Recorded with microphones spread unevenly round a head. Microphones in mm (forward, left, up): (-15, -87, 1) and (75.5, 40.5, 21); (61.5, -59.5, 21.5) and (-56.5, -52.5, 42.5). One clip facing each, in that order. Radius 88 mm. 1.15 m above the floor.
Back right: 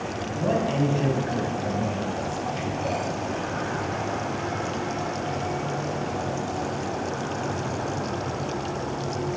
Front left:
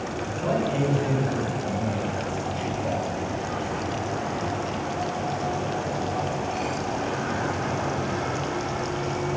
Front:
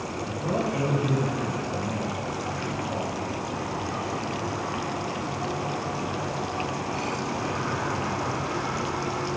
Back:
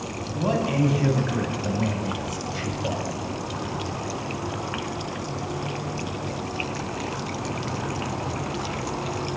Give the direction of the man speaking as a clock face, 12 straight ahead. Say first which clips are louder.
Back right 1 dB, back 4 dB; 6 o'clock.